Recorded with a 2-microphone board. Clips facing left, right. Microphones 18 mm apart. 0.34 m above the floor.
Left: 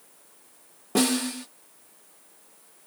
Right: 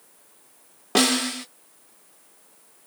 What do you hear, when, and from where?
0.9 s a snare drum: 50° right (ahead or behind), 0.8 m